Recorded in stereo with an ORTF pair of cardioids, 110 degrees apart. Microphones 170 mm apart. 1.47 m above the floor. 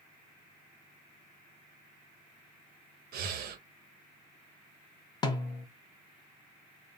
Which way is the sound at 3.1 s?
65° right.